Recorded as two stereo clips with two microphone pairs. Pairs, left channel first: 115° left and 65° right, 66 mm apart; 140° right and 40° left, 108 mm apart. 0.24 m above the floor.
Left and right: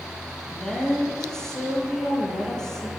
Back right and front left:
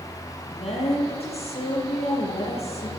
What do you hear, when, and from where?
0.5 s a woman speaking: 165° right, 7 m